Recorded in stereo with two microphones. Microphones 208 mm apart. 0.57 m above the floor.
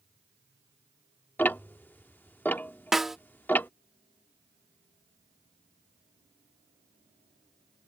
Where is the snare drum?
Centre (ahead or behind).